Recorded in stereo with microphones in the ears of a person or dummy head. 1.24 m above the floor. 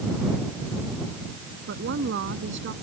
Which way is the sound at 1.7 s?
60° right (ahead or behind).